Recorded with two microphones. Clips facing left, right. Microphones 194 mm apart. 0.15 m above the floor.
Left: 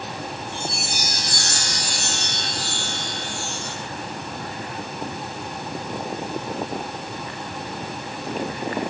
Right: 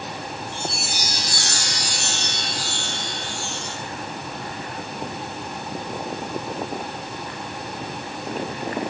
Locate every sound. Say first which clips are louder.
0.5 s a chime: even; 55° left (ahead or behind), 4 m